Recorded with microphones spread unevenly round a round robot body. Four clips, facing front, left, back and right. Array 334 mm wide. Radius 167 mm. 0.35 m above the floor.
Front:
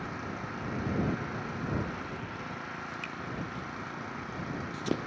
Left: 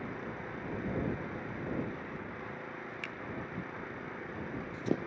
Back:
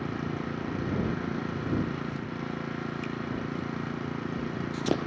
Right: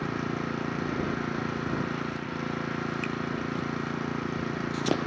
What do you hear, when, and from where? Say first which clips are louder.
0.0 s an engine running: right 10 dB, back 5 dB; 120° right
3.0 s a finger snap: right 12 dB, back 7 dB; 170° left